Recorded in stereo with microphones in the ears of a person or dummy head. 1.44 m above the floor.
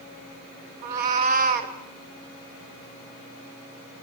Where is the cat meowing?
55° right (ahead or behind), 1.6 m.